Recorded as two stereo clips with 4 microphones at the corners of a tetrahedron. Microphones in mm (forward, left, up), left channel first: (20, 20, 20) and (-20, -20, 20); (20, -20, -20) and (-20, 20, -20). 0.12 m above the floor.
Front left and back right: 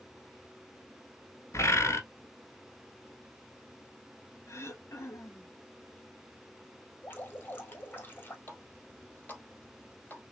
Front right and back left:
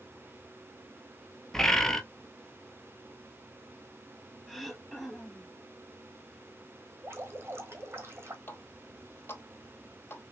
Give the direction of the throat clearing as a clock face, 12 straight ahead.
11 o'clock.